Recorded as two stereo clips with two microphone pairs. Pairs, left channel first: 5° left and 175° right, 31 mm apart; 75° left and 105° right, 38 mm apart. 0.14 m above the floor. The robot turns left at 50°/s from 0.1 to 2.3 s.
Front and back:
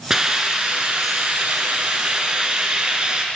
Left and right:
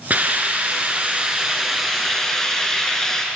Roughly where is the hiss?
Right.